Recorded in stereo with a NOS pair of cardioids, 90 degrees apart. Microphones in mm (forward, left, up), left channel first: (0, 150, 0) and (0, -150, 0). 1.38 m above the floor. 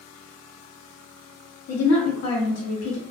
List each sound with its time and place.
1.7 s a woman speaking: 65° left, 0.9 m